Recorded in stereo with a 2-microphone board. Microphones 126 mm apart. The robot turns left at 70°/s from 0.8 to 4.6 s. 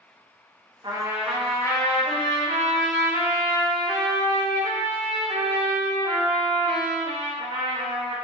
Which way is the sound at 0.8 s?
145° right.